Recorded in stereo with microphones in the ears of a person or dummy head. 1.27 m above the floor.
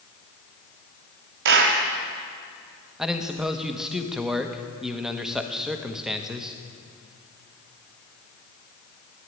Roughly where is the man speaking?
Centre.